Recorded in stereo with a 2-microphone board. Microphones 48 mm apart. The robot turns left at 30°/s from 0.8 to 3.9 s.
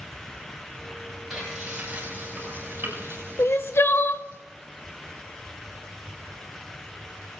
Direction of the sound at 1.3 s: 5° right (ahead or behind).